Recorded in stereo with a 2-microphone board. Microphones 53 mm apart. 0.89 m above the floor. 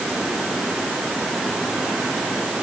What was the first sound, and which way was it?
Only background noise.